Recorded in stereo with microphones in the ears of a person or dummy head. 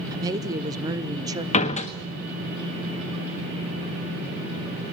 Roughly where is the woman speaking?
Right.